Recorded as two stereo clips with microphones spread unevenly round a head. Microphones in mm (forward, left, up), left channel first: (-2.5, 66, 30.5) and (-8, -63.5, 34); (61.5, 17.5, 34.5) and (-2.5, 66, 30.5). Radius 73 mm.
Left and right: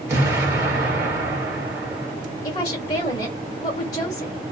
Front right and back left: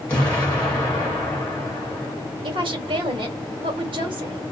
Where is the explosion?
75° right, 1.0 m.